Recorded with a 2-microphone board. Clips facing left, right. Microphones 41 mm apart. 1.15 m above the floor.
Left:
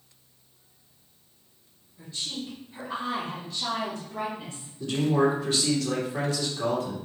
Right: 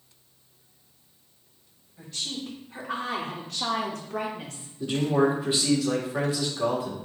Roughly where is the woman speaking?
Right.